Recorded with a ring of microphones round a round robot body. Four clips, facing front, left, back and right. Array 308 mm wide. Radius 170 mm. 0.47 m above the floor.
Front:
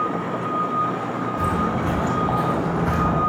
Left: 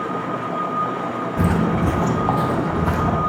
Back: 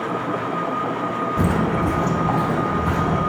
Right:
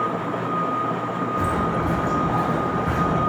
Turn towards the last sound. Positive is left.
turn(degrees=80)